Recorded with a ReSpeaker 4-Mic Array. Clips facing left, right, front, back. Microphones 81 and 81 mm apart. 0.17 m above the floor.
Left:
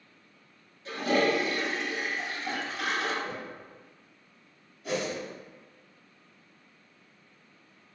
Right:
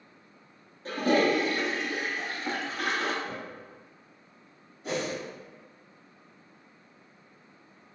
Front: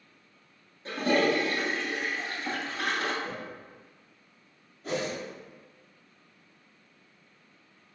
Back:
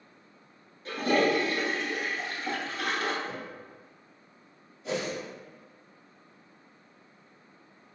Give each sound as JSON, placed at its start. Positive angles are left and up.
{"t": 0.8, "sound": "a toilet flushing", "azimuth_deg": -50, "distance_m": 1.0}
{"t": 3.2, "sound": "a whoosh", "azimuth_deg": 10, "distance_m": 1.0}
{"t": 4.8, "sound": "a whoosh", "azimuth_deg": -35, "distance_m": 1.7}